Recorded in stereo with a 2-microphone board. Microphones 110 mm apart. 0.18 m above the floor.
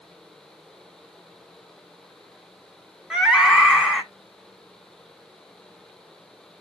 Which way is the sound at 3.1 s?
5° right (ahead or behind).